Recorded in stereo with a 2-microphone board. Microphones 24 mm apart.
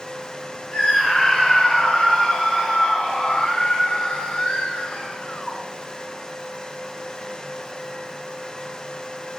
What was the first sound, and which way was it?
A scream, 5° right (ahead or behind).